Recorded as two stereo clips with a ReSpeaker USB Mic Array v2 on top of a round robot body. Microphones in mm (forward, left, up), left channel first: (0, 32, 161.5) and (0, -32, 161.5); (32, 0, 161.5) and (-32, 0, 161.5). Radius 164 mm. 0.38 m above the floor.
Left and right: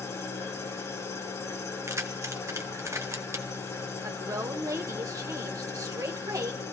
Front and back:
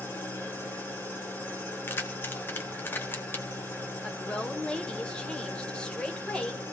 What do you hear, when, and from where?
0.0 s an engine running: 60° left, 5 m
1.9 s keys jangling: 55° right, 1.8 m
4.0 s a woman speaking: 75° right, 2 m